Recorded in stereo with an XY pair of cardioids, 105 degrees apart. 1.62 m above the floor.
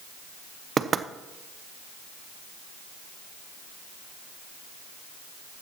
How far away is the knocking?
About 0.7 m.